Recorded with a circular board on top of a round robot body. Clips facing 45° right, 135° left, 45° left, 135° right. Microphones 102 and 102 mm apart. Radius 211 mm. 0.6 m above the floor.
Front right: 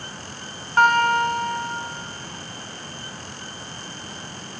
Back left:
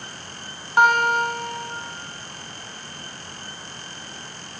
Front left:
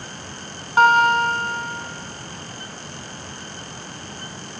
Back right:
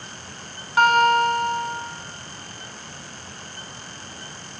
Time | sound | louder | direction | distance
0.8 | a guitar | even, front left 1 dB | 70° left | 1.3 m